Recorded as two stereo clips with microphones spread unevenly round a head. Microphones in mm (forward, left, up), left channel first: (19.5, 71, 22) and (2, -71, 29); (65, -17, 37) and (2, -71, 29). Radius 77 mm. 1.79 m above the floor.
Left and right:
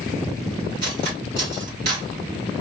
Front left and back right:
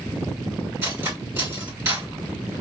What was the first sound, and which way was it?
Cutlery clinking, 75° right.